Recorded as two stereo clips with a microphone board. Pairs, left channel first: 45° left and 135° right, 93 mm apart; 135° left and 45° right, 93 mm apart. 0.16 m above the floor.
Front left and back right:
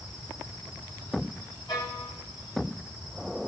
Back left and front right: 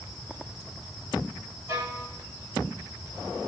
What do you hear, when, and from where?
1.7 s a violin: 5° left, 6.5 m